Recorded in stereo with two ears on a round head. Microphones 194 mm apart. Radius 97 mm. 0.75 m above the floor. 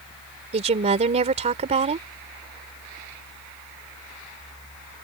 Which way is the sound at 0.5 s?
30° right (ahead or behind).